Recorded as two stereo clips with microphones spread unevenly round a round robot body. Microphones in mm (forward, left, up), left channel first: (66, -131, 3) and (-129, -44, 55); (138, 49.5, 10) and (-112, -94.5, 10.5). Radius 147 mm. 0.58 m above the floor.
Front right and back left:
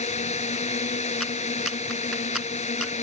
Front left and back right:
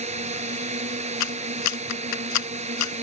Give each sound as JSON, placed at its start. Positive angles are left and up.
{"t": 0.0, "sound": "a drone", "azimuth_deg": -80}
{"t": 1.2, "sound": "a clap", "azimuth_deg": 65}